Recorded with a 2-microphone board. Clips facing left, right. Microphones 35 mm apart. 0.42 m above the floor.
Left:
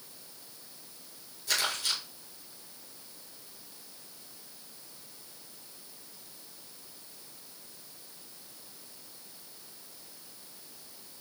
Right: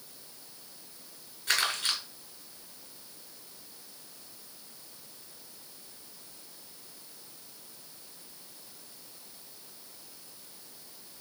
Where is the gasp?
I don't hear a gasp.